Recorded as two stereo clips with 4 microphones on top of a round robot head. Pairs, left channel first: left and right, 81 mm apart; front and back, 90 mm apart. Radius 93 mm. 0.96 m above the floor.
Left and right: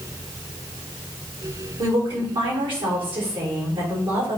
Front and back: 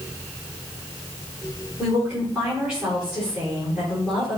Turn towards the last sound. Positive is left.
turn(degrees=-100)